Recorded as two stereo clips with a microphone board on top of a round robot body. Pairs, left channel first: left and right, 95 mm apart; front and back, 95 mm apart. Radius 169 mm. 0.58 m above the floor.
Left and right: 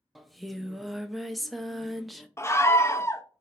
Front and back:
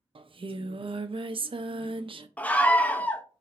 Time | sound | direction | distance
0.1 | singing | straight behind | 0.6 m
2.4 | a scream | 60° left | 0.7 m